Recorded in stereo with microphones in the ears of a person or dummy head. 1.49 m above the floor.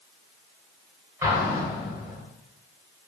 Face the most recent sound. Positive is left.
turn(degrees=-20)  # may be behind; listen again after turning